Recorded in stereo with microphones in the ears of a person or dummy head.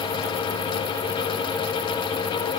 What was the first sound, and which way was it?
Only background noise.